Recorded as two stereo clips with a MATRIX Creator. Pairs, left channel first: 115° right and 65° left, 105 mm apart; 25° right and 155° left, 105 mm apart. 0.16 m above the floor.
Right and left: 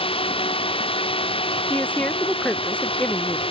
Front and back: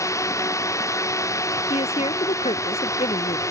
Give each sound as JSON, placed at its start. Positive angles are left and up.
{"t": 0.0, "sound": "a drone", "azimuth_deg": -80}
{"t": 1.7, "sound": "a woman speaking", "azimuth_deg": -35}